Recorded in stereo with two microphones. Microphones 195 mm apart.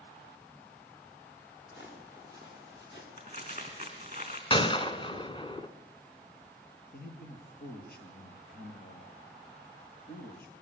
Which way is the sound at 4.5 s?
25° left (ahead or behind).